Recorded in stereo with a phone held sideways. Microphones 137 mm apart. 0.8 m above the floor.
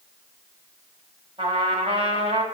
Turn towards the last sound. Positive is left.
turn(degrees=-50)  # may be behind; listen again after turning